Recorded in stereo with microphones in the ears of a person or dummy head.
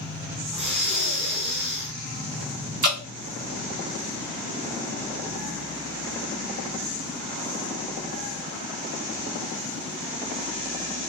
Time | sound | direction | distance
0.5 | breathing | 5° right (ahead or behind) | 1.0 m
2.8 | dripping | 40° right (ahead or behind) | 1.5 m